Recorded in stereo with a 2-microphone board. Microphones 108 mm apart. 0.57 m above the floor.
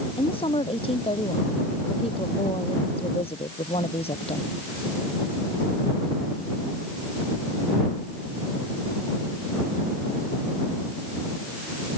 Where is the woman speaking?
55° left (ahead or behind); by 4.5 s 65° left (ahead or behind).